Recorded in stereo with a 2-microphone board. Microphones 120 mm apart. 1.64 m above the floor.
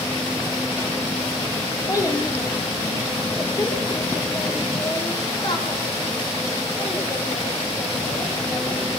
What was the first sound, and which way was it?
A child speaking, 25° left (ahead or behind).